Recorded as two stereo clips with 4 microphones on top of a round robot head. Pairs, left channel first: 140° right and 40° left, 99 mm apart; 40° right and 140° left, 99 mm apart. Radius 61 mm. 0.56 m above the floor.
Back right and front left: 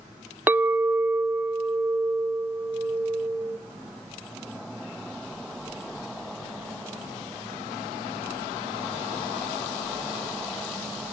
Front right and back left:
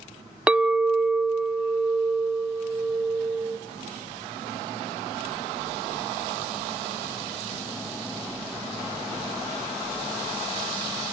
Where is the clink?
80° left, 0.5 m.